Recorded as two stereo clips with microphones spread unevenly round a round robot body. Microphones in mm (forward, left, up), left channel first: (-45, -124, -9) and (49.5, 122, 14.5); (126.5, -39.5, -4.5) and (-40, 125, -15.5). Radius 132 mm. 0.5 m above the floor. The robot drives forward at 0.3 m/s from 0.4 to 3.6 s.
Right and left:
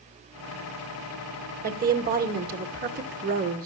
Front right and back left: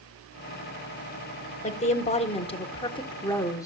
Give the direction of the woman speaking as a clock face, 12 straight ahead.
12 o'clock.